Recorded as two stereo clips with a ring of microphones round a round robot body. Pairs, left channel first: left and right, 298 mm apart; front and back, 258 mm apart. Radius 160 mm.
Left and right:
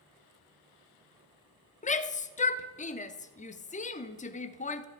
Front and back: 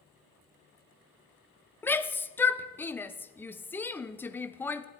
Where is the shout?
70° left, 0.7 m.